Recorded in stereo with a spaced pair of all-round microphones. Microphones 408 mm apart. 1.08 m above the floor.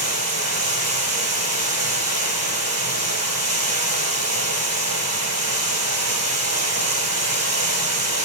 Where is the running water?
40° right (ahead or behind), 3.5 m.